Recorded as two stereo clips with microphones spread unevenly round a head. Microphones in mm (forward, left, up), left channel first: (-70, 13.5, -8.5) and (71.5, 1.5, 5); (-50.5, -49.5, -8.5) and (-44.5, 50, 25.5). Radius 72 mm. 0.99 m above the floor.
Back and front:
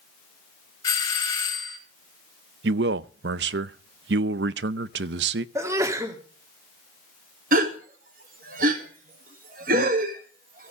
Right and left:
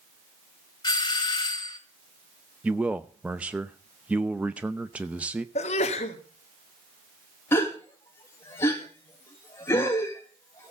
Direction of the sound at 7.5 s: 35° right.